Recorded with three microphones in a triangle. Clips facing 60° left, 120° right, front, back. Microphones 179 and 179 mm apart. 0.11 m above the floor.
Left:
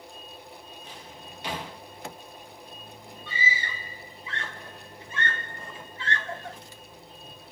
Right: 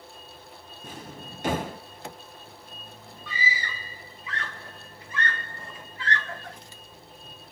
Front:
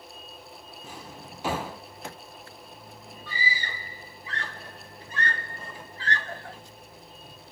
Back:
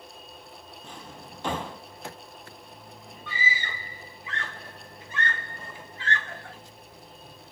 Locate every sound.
0.8 s a drawer: 80° right, 0.7 m
3.3 s a scream: 15° left, 1.4 m